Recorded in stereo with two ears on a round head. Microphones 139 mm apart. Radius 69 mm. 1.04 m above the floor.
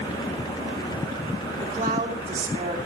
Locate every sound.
1.6 s a woman speaking: 50° right (ahead or behind), 3 m